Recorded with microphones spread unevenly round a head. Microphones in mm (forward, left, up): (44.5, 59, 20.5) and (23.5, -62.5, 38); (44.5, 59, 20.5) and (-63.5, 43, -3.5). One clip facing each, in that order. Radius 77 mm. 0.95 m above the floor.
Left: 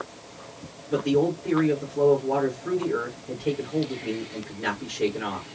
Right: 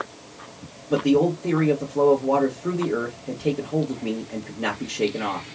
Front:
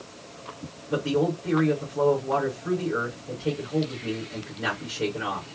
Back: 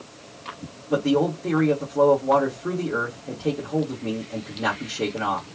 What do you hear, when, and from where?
0.9 s a man speaking: 125° right, 1.8 m